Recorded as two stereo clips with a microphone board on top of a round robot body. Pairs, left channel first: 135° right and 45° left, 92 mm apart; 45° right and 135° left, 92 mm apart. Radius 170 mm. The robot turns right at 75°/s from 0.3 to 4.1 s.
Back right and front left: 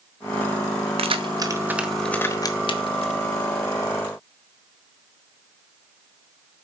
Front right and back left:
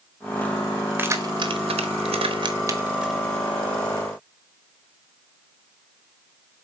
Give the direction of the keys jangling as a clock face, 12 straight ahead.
10 o'clock.